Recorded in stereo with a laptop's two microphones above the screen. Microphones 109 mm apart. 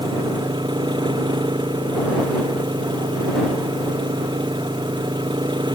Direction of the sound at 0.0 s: 45° right (ahead or behind).